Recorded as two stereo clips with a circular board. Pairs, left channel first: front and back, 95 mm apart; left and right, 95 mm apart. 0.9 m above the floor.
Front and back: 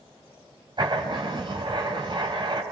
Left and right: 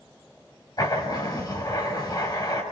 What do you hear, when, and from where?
0.8 s writing: 140° left, 6 m